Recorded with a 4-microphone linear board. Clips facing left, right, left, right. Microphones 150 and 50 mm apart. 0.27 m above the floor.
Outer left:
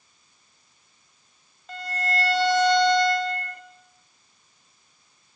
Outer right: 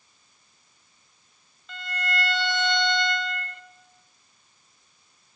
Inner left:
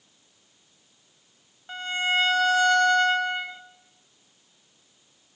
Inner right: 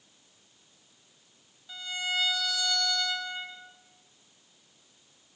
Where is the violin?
40° left (ahead or behind), 1.5 m.